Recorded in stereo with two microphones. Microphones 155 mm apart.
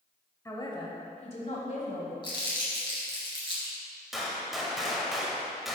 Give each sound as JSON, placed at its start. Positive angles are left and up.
{"t": 0.5, "sound": "a man speaking", "side_deg": 20, "distance_m": 1.0}
{"t": 2.2, "sound": "crumpling", "side_deg": 30, "distance_m": 2.5}
{"t": 4.1, "sound": "a gunshot", "side_deg": 0, "distance_m": 1.0}